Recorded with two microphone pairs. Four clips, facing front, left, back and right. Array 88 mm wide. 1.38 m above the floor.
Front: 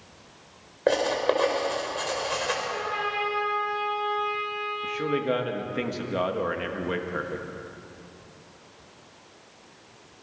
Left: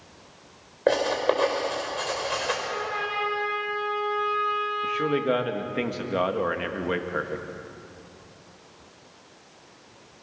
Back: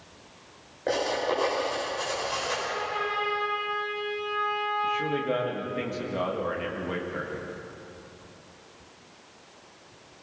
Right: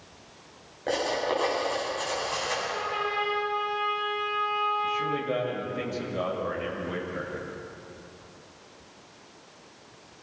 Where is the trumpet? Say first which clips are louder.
Even, front 1 dB; 55° left, 9 m.